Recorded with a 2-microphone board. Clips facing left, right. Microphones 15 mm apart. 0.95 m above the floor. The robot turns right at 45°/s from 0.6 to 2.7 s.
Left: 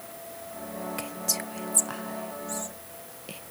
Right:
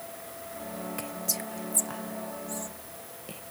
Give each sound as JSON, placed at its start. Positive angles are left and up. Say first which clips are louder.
{"t": 1.0, "sound": "whispering", "louder": "left 3 dB", "side_deg": 10}